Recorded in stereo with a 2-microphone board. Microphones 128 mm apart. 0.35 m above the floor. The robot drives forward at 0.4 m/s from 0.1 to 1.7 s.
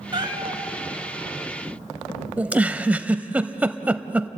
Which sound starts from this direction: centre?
A giggle, at 2.4 s.